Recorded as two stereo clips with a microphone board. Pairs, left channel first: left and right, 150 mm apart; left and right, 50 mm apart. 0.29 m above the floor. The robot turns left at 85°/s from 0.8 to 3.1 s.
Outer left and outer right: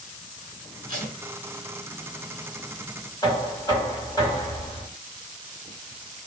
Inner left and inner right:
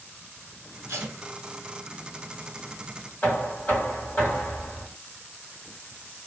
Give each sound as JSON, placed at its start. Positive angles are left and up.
{"t": 0.9, "sound": "tape being pulled", "side_deg": -85, "distance_m": 1.0}
{"t": 3.2, "sound": "knocking", "side_deg": 30, "distance_m": 1.6}